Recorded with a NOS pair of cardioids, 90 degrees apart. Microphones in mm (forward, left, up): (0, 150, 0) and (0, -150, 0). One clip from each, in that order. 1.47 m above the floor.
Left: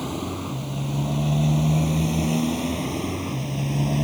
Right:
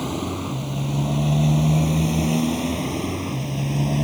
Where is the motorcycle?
20° right; by 4.0 s 10° right.